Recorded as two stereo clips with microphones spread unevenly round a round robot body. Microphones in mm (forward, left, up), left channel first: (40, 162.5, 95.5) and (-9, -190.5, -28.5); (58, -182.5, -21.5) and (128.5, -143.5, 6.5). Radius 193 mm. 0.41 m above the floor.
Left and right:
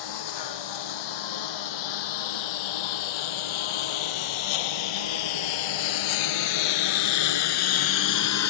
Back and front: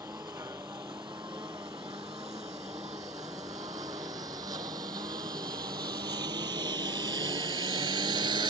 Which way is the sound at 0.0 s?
110° left.